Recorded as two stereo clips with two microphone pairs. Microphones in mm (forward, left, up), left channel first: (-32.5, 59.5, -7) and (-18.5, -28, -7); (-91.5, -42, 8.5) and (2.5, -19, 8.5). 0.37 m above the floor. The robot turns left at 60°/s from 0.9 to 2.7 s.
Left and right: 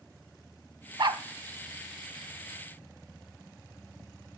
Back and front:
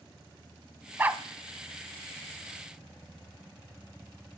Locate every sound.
1.0 s a dog barking: 55° right, 0.8 m; by 1.2 s 70° right, 0.8 m